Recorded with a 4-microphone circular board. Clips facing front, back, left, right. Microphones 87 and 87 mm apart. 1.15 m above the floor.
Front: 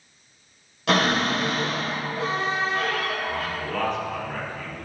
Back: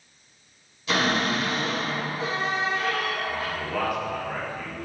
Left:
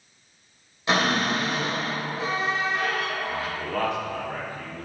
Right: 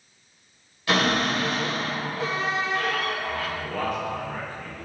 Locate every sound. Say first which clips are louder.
0.9 s a cupboard door: front 3 dB, even; 20° left, 4 m
3.6 s a man speaking: even, left 1 dB; 95° left, 3 m